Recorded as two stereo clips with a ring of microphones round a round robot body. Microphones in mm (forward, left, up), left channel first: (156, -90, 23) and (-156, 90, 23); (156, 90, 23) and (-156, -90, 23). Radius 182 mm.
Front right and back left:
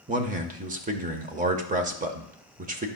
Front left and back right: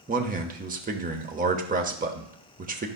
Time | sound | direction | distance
0.1 | a man speaking | 175° right | 0.9 m